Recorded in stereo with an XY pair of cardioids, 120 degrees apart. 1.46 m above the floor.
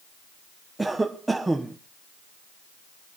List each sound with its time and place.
0.8 s a cough: 15° right, 1.1 m